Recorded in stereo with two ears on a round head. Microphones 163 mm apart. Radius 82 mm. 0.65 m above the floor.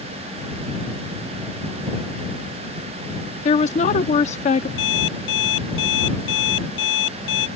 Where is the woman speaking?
40° left (ahead or behind).